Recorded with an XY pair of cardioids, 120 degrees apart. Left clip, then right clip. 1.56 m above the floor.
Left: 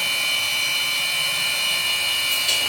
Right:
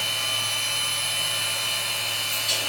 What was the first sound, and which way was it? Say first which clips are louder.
A machine running: left 4 dB; 45° left.